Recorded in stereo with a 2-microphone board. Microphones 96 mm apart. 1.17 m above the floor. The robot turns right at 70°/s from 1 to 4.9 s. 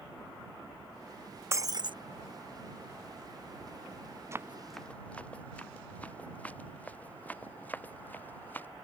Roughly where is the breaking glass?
Behind right.